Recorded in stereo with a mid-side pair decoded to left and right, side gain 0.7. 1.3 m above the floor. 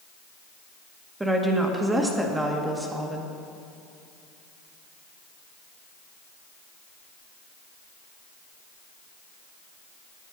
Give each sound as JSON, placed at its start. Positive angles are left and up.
{"t": 1.2, "sound": "a woman speaking", "azimuth_deg": -10, "distance_m": 1.8}